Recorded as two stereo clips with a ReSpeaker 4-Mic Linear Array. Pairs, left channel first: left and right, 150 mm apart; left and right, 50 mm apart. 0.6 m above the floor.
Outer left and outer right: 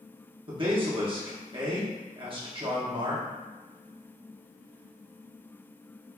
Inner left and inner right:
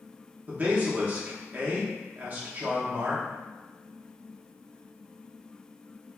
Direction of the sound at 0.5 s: 35° right (ahead or behind).